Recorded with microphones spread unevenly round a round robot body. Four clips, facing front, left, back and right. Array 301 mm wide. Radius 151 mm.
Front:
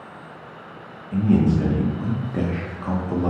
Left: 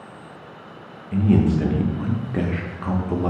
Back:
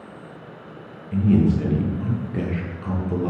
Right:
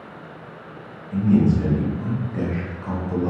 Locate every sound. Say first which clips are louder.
1.1 s a man speaking: right 1 dB, even; 90° left, 0.6 m